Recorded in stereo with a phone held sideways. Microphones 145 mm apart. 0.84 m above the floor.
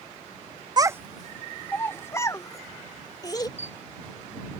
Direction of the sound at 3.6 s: 55° left (ahead or behind).